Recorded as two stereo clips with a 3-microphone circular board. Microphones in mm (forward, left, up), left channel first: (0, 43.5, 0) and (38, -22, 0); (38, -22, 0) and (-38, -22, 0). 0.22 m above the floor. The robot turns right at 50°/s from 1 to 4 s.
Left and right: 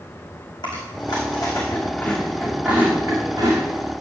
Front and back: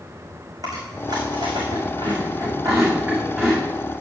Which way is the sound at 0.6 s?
145° left.